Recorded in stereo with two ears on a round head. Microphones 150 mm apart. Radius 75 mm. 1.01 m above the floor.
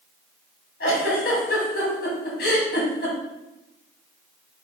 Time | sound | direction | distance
0.8 | a giggle | 60° left (ahead or behind) | 2.5 m